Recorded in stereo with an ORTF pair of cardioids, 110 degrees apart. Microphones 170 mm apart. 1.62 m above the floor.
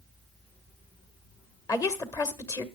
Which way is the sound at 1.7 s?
20° left.